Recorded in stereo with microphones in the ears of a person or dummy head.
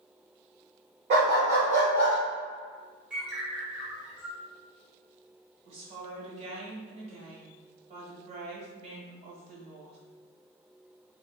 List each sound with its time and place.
1.1 s a dog barking: 45° right (ahead or behind), 1.1 m; by 2.2 s 50° right (ahead or behind), 1.5 m
3.1 s a bird: 10° right (ahead or behind), 1.1 m
5.7 s a woman speaking: 40° right (ahead or behind), 1.2 m